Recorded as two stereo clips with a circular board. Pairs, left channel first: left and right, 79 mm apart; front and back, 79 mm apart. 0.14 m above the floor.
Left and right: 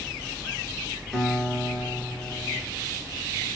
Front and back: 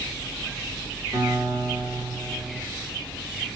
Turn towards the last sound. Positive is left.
turn(degrees=180)